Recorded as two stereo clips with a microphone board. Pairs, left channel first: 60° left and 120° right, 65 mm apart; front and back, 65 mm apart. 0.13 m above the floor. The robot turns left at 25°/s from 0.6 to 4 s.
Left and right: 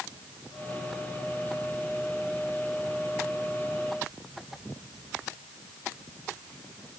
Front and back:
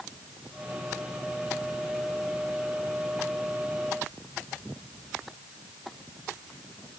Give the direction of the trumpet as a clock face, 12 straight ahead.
No trumpet in this recording.